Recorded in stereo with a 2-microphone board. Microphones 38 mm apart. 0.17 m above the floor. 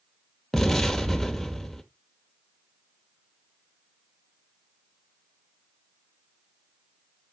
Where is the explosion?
10° left (ahead or behind), 1.3 m.